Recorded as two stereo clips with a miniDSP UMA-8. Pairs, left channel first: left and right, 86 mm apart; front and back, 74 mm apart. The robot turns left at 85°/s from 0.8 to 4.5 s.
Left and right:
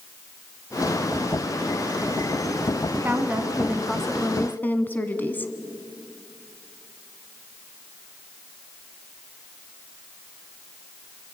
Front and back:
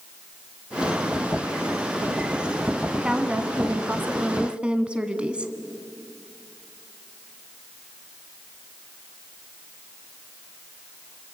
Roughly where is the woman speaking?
Right.